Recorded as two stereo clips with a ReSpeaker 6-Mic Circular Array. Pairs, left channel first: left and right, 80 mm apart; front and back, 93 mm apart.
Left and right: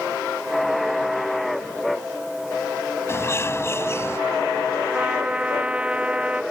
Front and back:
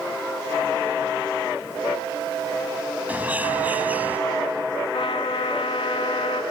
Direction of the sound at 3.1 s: 120° left.